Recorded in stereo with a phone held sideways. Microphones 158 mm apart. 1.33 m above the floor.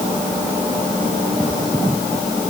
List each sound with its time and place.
Only background noise.